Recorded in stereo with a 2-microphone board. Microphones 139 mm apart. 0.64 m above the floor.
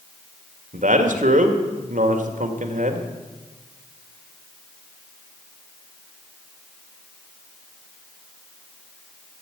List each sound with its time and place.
0.7 s a man speaking: 70° right (ahead or behind), 1.9 m